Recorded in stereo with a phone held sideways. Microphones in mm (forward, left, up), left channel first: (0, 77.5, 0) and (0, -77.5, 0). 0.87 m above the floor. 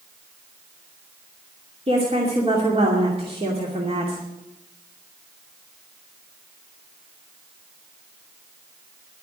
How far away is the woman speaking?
About 2.5 m.